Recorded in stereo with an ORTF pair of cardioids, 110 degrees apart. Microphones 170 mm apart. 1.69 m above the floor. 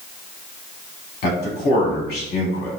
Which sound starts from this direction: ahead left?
A man speaking, at 1.2 s.